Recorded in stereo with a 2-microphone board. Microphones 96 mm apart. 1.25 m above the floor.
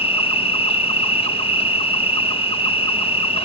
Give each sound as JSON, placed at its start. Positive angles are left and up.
{"t": 0.0, "sound": "an insect", "side_deg": 75}